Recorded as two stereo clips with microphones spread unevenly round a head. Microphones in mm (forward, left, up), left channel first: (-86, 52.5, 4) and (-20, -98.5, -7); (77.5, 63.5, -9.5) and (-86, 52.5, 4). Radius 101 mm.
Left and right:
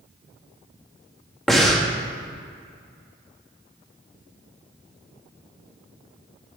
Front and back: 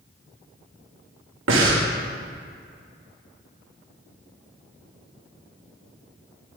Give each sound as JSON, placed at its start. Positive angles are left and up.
{"t": 1.5, "sound": "breathing", "azimuth_deg": -155, "distance_m": 1.8}